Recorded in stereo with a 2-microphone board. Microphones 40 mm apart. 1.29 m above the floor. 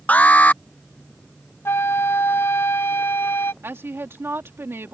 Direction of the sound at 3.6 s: 80° right.